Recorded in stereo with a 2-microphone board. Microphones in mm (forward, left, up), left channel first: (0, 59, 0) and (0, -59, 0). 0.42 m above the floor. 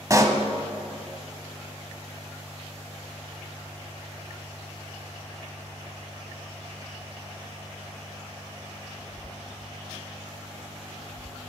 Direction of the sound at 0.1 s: 30° right (ahead or behind).